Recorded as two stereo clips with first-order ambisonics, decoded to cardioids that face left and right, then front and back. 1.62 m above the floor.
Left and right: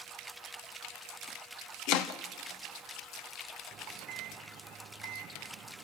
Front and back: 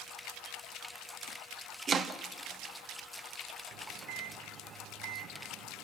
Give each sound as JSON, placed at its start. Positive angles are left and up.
{"t": 1.9, "sound": "chopping", "azimuth_deg": 115, "distance_m": 0.7}
{"t": 3.7, "sound": "a microwave", "azimuth_deg": -140, "distance_m": 0.6}